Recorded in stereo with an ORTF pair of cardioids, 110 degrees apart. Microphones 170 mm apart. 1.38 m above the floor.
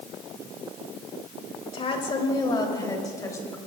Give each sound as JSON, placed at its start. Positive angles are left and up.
{"t": 1.7, "sound": "a woman speaking", "azimuth_deg": 35, "distance_m": 3.0}